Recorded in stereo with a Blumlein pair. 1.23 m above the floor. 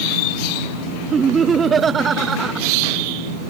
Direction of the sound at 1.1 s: 20° right.